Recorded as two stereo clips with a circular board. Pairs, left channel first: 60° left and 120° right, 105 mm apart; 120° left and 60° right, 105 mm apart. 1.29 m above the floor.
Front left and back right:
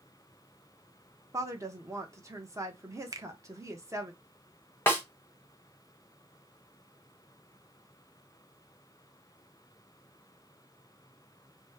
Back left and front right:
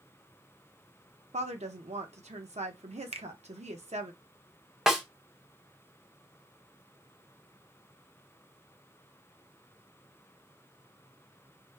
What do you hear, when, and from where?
1.3 s a woman speaking: 60° right, 0.9 m
3.1 s a finger snap: 65° right, 0.5 m
4.9 s a snare drum: 20° left, 1.1 m